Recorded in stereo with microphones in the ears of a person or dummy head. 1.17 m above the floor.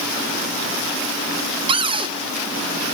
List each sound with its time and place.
1.7 s a cupboard door: 25° right (ahead or behind), 1.1 m